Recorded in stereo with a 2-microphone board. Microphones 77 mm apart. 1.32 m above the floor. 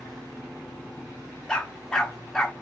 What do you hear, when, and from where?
1.5 s a dog barking: 10° left (ahead or behind), 0.9 m